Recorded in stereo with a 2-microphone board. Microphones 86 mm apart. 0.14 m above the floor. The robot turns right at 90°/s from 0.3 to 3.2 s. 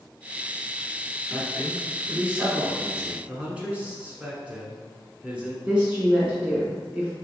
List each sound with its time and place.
1.3 s a man speaking: 15° left (ahead or behind), 1.7 m; by 3.2 s 20° right (ahead or behind), 1.7 m
3.3 s a man speaking: 15° right (ahead or behind), 1.2 m
5.7 s a woman speaking: 15° right (ahead or behind), 1.6 m